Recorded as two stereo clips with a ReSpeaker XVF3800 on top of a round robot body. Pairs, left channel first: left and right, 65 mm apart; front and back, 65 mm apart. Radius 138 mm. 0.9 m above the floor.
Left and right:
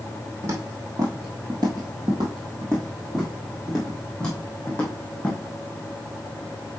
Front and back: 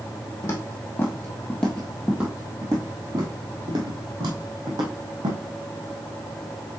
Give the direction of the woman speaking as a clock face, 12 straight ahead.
No woman speaking in this recording.